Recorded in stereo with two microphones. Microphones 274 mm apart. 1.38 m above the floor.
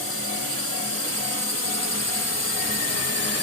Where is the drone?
55° left (ahead or behind); by 3.4 s 60° left (ahead or behind).